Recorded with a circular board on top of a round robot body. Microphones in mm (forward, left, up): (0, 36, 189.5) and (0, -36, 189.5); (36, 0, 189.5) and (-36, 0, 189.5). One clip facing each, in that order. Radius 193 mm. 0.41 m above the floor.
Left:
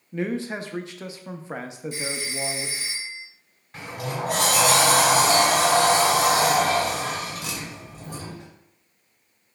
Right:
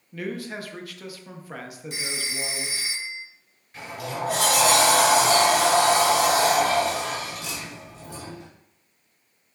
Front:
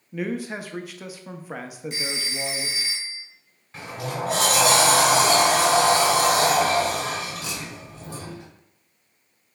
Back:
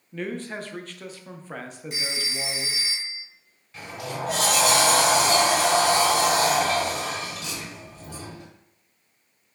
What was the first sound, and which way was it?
A man speaking, 70° left.